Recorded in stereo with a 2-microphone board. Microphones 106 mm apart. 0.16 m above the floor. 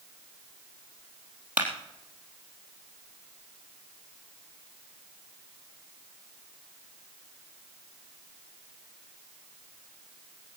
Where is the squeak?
I don't hear a squeak.